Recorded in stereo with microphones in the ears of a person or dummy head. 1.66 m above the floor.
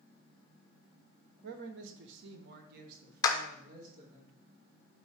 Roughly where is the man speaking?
Right.